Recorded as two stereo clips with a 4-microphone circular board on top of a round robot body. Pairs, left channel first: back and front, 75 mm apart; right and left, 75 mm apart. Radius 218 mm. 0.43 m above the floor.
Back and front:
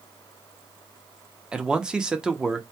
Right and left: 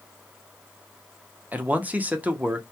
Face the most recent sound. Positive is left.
turn(degrees=60)